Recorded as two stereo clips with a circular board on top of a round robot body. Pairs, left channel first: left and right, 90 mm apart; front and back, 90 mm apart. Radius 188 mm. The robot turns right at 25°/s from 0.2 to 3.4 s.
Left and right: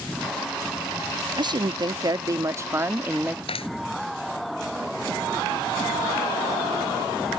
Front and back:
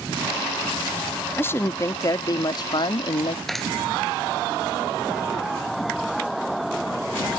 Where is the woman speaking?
65° right; by 3.4 s 15° right.